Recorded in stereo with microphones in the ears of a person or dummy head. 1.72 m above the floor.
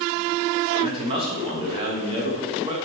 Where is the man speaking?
30° right (ahead or behind), 3 m.